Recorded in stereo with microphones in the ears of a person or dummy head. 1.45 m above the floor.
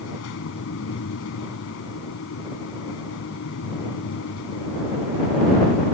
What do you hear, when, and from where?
0.0 s a fan: 65° left (ahead or behind)